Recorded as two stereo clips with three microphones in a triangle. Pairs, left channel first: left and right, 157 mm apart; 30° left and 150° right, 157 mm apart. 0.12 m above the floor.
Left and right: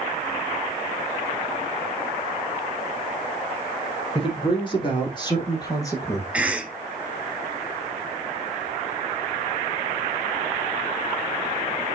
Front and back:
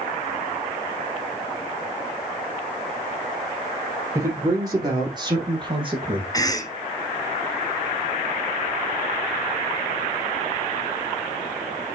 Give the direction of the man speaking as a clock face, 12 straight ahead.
7 o'clock.